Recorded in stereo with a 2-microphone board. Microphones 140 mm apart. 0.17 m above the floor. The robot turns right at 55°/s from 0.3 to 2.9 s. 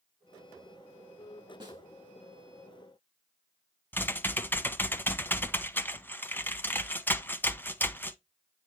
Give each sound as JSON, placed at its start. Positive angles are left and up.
{"t": 1.6, "sound": "a snare drum", "side_deg": -35, "distance_m": 3.0}
{"t": 3.9, "sound": "typing on a keyboard", "side_deg": 15, "distance_m": 0.6}